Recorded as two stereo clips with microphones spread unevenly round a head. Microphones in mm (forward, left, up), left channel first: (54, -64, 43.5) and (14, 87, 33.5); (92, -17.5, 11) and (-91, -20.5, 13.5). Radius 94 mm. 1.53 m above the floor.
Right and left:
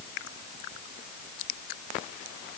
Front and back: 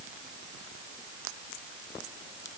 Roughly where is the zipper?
I don't hear a zipper.